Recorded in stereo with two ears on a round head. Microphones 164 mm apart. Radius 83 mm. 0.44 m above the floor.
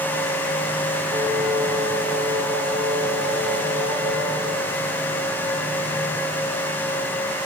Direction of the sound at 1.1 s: 25° right (ahead or behind).